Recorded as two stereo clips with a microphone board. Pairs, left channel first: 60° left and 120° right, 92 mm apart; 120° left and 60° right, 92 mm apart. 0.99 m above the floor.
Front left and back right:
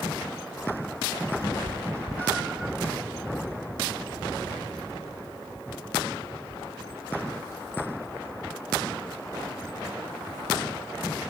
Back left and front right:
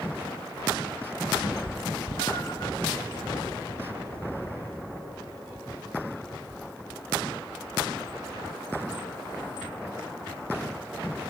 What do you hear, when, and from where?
1.4 s a cat meowing: 120° left, 2 m; by 2.7 s 165° left, 2 m